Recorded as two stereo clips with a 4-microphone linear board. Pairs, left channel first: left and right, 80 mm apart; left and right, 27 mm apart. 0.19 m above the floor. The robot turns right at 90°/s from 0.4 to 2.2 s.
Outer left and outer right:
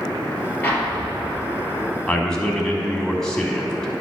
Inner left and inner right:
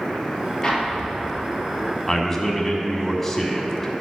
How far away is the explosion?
About 3 m.